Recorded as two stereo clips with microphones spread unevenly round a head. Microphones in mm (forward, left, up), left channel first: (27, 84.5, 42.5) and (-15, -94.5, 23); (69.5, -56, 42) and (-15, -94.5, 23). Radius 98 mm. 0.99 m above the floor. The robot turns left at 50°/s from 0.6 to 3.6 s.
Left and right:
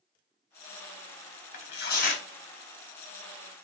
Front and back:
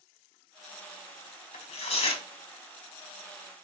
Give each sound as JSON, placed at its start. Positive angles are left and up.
{"t": 1.5, "sound": "tearing paper", "azimuth_deg": 50, "distance_m": 1.8}